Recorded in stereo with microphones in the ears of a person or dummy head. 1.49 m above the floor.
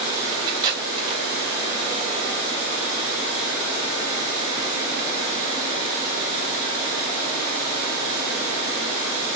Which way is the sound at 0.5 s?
20° right (ahead or behind).